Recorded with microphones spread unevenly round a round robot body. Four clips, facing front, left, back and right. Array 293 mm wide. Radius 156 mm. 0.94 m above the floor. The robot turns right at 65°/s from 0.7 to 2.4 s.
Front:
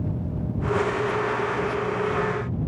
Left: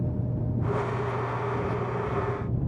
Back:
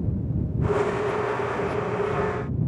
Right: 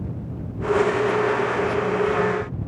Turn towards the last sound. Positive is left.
No sound to turn to.